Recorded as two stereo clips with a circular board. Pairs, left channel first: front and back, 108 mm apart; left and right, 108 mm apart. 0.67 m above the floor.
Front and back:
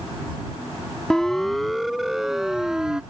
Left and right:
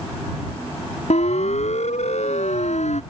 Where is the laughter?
No laughter in this recording.